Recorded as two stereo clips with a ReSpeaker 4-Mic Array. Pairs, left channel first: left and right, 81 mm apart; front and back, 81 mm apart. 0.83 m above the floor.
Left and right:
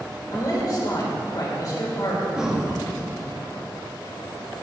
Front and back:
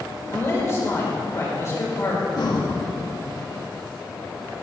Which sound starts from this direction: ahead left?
A man speaking, at 0.3 s.